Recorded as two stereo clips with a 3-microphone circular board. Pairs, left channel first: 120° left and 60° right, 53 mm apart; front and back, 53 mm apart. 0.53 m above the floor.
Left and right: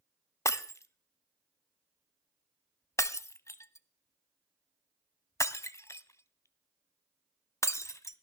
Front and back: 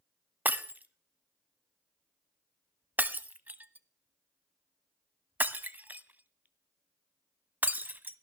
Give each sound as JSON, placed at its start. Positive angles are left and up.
{"t": 0.5, "sound": "breaking glass", "azimuth_deg": 125, "distance_m": 0.6}